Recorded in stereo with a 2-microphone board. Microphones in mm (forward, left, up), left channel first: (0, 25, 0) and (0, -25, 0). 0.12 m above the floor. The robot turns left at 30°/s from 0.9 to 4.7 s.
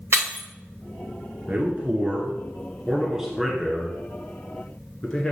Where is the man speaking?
30° right (ahead or behind), 1.4 m; by 5.3 s 15° left (ahead or behind), 1.4 m.